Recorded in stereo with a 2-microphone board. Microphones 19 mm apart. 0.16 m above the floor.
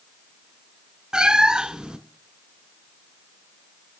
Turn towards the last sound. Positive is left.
turn(degrees=-55)  # may be behind; listen again after turning